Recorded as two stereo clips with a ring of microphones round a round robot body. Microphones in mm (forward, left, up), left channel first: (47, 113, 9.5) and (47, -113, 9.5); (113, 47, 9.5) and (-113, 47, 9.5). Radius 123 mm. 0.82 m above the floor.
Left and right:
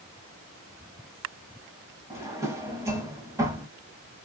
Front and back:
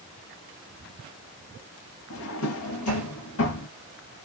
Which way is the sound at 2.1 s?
15° right.